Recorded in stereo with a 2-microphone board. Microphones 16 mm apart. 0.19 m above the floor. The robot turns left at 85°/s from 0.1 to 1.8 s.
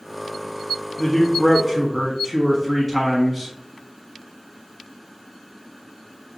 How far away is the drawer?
No drawer in this recording.